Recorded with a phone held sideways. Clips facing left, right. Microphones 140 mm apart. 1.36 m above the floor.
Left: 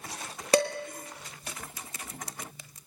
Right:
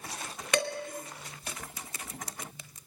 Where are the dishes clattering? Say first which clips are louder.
Left 6 dB; 35° left (ahead or behind), 1.3 m.